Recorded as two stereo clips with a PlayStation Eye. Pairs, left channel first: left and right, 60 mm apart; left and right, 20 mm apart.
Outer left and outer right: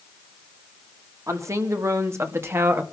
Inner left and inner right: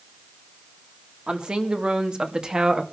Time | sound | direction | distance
1.3 | a woman speaking | 60° right (ahead or behind) | 3 m